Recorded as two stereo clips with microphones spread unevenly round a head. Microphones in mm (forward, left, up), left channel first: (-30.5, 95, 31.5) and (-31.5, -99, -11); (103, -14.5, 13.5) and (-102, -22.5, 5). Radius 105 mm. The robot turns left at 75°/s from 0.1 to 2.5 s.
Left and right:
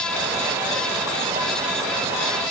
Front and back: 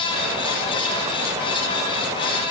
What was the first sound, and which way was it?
Only background noise.